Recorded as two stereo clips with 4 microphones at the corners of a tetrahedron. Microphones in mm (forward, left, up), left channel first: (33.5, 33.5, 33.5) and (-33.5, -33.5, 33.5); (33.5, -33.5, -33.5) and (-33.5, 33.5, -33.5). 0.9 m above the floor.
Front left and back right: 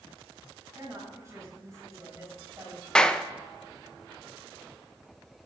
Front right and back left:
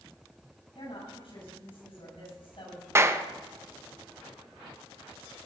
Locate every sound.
0.8 s a woman speaking: 75° right, 5.5 m
3.0 s a clap: 120° left, 0.6 m